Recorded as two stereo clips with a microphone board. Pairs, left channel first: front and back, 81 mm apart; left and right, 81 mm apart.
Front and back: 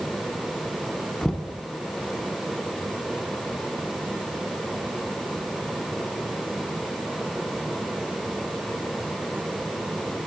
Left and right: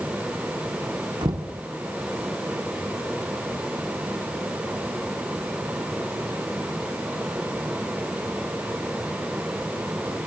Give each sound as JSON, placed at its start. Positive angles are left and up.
{"t": 1.2, "sound": "knocking", "azimuth_deg": -80, "distance_m": 2.5}